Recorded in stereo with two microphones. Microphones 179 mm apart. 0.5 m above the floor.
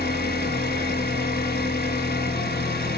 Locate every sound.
0.0 s an engine running: 65° left (ahead or behind), 1.8 m